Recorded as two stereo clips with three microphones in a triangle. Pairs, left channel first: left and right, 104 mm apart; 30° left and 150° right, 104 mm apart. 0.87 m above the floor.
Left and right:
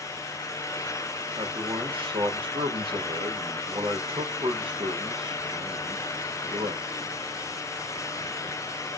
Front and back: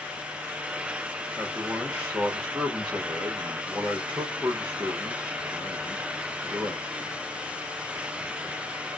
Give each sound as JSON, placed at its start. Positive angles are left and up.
{"t": 1.4, "sound": "a man speaking", "azimuth_deg": -80, "distance_m": 1.0}